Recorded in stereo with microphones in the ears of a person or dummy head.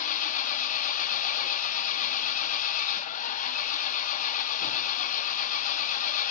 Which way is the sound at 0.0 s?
50° left (ahead or behind).